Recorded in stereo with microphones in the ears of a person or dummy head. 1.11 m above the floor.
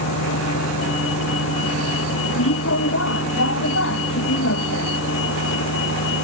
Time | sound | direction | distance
0.0 | a vehicle | 85° left | ?